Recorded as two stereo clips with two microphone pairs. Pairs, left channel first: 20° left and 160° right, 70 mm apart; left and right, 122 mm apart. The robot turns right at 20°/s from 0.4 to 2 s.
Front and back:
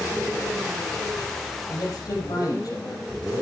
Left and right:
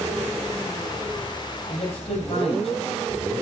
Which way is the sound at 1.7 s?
55° left.